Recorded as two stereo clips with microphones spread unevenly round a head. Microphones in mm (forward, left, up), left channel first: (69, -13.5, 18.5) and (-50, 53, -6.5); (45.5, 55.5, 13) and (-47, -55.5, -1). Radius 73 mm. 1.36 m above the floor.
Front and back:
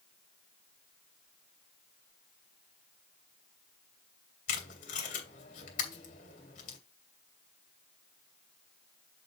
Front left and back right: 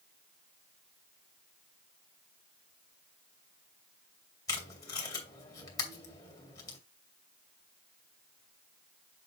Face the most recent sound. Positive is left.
turn(degrees=-10)